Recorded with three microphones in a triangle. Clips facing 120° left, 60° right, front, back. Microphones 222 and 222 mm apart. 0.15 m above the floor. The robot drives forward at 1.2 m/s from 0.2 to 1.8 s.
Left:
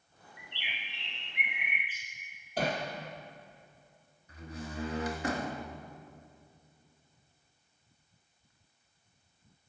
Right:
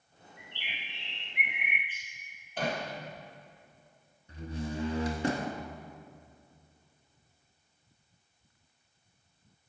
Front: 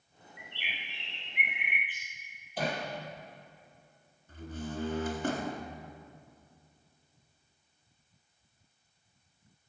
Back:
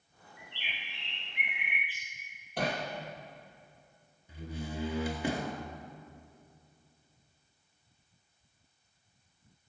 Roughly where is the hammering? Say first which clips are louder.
Left 1 dB, even; behind.